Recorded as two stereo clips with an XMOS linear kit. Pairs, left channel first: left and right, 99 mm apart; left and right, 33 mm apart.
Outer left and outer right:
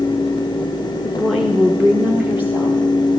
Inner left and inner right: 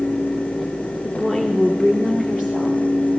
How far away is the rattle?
No rattle in this recording.